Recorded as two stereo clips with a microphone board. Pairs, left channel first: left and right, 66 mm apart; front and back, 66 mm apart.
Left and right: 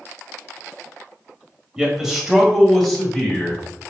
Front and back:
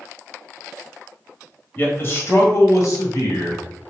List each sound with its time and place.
1.8 s a man speaking: 20° right, 1.0 m; by 3.6 s 15° left, 1.8 m